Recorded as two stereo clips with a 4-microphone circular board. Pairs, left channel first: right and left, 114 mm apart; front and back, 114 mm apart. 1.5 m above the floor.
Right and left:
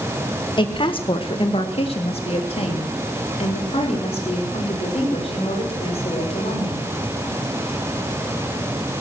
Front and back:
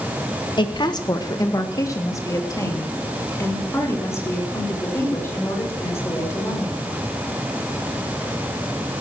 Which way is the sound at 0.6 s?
45° right.